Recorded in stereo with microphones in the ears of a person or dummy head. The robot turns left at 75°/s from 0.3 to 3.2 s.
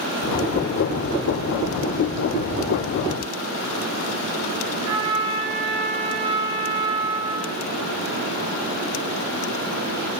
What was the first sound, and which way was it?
A trumpet, 60° right (ahead or behind).